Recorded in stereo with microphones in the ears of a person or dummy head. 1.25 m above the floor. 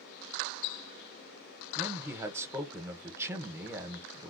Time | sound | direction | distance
1.8 | a man speaking | 15° right (ahead or behind) | 0.8 m